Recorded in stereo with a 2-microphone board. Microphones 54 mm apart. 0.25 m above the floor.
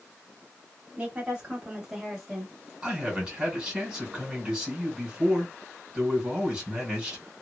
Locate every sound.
1.0 s a woman speaking: 25° right (ahead or behind), 1.3 m; by 2.7 s 10° left (ahead or behind), 1.2 m
2.8 s a man speaking: 15° right (ahead or behind), 1.8 m